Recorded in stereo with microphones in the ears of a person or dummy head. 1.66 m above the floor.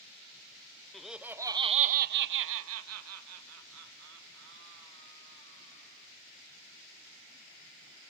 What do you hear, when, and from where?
0.9 s laughter: centre (ahead or behind), 0.8 m; by 6.1 s 60° right (ahead or behind), 2.5 m